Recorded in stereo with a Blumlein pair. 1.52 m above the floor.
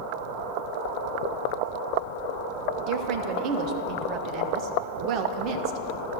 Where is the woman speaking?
40° right, 0.7 m.